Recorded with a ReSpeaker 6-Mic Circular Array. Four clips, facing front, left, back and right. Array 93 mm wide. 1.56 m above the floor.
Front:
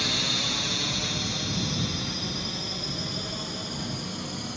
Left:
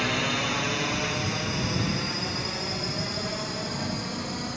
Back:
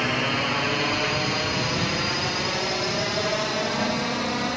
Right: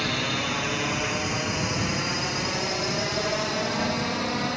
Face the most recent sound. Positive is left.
turn(degrees=-150)